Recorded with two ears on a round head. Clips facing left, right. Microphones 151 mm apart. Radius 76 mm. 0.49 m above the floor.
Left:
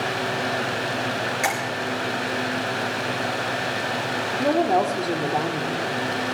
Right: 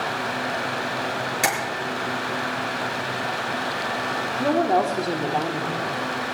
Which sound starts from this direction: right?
Tapping, at 1.4 s.